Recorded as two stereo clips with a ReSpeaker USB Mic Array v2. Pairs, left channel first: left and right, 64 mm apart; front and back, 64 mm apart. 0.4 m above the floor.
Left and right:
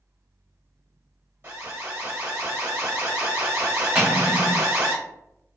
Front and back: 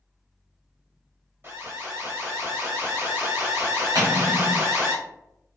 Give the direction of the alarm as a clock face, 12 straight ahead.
5 o'clock.